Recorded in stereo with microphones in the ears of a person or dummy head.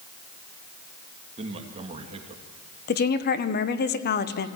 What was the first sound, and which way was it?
A man speaking, 35° right (ahead or behind).